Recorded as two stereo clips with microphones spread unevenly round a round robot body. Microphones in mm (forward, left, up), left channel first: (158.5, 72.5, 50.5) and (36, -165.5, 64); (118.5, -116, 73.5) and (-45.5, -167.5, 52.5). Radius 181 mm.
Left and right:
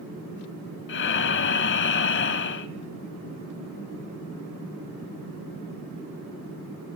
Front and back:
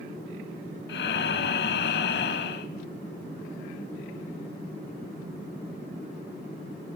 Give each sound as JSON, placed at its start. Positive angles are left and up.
{"t": 0.9, "sound": "breathing", "azimuth_deg": 15, "distance_m": 0.7}